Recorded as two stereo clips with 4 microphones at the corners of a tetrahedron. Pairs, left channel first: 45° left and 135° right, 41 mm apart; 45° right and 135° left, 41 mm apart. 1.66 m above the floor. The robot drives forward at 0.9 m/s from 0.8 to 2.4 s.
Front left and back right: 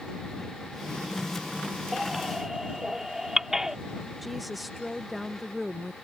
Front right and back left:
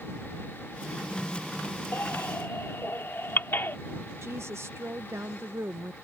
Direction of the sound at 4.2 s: 140° left.